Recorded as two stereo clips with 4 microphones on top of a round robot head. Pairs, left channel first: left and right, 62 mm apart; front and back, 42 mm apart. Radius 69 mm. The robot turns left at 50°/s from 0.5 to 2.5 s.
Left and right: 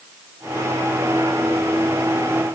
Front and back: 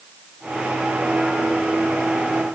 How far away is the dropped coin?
No dropped coin in this recording.